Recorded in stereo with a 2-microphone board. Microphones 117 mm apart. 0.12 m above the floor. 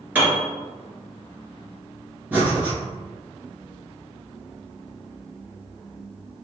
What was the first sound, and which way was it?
A piano, 15° right (ahead or behind).